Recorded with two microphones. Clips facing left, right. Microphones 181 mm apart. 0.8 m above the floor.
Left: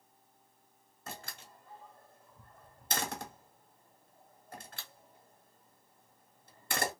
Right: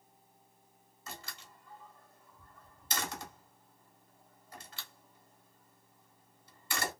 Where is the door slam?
50° left (ahead or behind), 1.4 m.